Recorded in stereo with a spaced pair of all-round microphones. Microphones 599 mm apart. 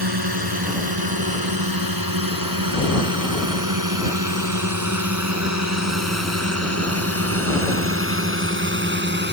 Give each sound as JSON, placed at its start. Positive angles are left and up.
{"t": 0.0, "sound": "a drone", "side_deg": -40}